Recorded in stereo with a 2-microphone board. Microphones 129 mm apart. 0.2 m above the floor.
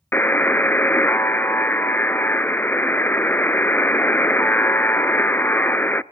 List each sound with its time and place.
0.1 s a buzzer: 15° left (ahead or behind), 0.5 m